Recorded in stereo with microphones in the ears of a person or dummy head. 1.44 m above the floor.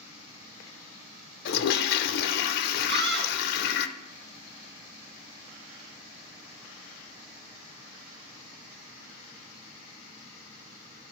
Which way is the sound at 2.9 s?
55° right (ahead or behind).